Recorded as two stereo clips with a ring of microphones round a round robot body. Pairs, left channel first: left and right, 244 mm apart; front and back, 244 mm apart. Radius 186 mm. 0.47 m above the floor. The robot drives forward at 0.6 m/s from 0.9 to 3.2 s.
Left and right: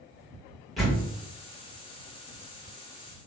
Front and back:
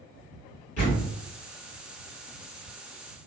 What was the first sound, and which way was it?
A door slam, straight ahead.